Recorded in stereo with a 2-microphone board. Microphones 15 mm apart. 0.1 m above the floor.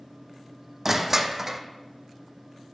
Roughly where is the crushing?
Right.